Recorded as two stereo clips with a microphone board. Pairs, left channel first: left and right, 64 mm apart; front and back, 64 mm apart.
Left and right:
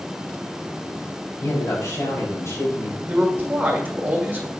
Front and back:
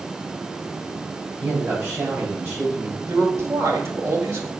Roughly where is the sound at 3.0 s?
Behind right.